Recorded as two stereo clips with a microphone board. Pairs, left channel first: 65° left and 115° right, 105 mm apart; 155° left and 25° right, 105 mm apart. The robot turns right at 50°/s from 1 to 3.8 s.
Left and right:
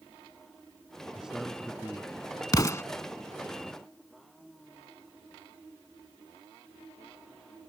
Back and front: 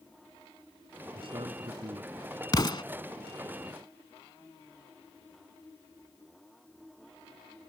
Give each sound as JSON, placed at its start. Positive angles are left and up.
{"t": 1.1, "sound": "a man speaking", "azimuth_deg": -35}
{"t": 2.5, "sound": "an explosion", "azimuth_deg": 115}